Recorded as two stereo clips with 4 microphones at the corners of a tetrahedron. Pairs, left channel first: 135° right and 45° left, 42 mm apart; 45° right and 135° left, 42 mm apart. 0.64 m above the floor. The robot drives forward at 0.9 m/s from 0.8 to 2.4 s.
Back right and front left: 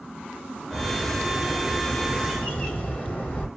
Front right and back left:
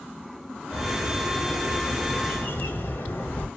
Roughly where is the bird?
Ahead right.